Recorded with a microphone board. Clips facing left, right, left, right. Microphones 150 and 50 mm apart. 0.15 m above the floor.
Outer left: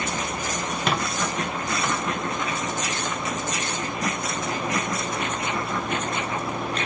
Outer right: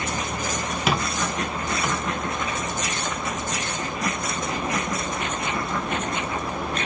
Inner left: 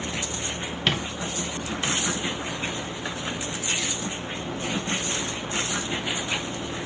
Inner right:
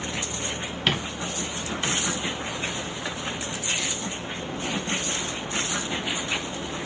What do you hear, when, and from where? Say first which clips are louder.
0.9 s a squeak: outer right 2 dB, even; 5° right (ahead or behind), 1.7 m